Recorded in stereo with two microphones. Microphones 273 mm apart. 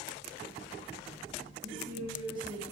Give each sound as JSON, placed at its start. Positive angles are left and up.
{"t": 1.6, "sound": "a woman speaking", "side_deg": -20, "distance_m": 4.5}